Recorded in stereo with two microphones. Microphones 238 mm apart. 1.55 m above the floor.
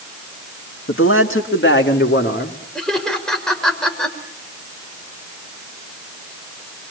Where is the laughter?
5° left (ahead or behind), 5.5 m.